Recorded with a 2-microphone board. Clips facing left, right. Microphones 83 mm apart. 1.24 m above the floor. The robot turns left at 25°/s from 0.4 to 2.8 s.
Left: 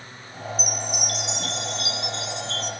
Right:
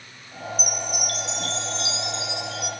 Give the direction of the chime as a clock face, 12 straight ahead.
4 o'clock.